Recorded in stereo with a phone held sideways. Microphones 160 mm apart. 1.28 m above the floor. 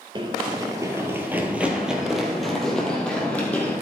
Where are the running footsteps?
30° right (ahead or behind), 1.4 m; by 3.7 s 10° left (ahead or behind), 2.5 m.